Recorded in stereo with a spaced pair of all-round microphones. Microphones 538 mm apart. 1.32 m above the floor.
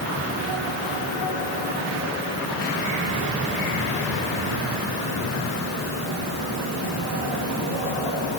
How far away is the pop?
I don't hear a pop.